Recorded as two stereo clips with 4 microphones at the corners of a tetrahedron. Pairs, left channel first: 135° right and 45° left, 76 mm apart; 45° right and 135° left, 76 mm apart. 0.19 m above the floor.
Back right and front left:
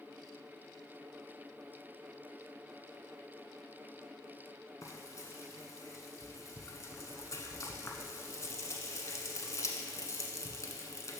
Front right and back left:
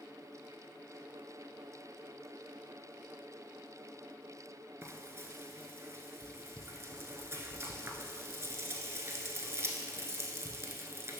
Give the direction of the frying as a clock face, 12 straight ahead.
6 o'clock.